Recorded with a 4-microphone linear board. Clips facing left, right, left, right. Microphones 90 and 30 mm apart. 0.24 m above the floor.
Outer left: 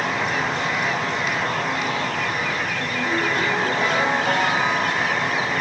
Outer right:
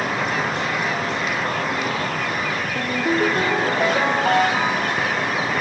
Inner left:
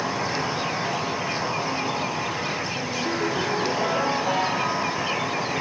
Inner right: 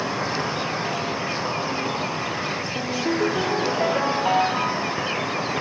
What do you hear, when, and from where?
0.0 s an insect: 50° right (ahead or behind), 3.5 m
2.8 s a ringtone: 45° right (ahead or behind), 2.5 m